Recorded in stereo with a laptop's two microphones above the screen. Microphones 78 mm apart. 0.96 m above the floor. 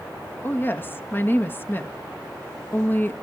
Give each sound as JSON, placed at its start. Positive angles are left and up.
{"t": 0.4, "sound": "a woman speaking", "side_deg": 25, "distance_m": 1.4}